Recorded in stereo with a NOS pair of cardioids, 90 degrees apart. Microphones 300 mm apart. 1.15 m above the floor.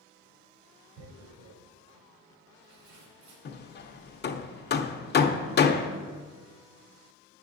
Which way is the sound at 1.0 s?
70° right.